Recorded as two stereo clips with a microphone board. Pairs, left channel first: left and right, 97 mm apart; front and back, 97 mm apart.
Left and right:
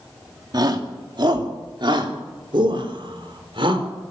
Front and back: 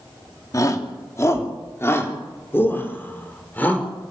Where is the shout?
50° right, 2.5 m; by 3.9 s 70° right, 4.5 m.